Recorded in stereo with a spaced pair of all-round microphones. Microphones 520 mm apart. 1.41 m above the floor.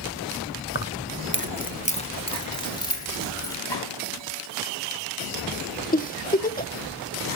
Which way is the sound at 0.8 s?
25° left (ahead or behind).